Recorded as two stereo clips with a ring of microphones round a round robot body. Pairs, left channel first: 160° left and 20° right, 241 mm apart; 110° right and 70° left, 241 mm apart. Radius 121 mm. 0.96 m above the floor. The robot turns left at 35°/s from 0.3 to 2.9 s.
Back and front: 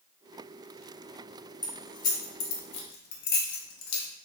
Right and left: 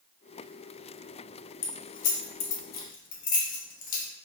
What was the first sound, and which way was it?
Keys jangling, 130° right.